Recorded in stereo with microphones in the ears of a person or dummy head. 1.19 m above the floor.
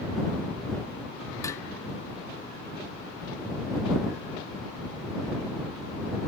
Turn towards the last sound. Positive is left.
turn(degrees=20)  # may be behind; listen again after turning